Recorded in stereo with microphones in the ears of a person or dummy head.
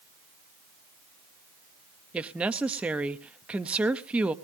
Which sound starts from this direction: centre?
A woman speaking, at 2.1 s.